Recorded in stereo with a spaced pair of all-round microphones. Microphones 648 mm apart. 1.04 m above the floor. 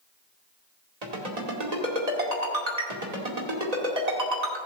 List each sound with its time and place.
1.0 s a ringtone: 80° right, 2 m